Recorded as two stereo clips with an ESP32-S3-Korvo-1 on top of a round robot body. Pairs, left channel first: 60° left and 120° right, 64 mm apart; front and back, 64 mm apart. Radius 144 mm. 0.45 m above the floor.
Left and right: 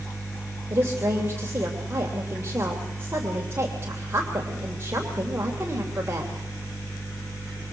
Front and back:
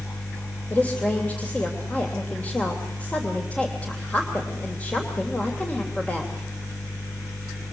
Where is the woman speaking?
65° right, 3 m.